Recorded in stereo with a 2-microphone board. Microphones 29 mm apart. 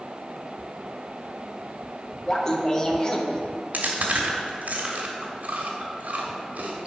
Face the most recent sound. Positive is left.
turn(degrees=-75)  # may be behind; listen again after turning